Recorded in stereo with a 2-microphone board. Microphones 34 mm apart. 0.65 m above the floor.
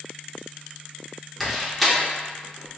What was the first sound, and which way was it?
A door slam, centre (ahead or behind).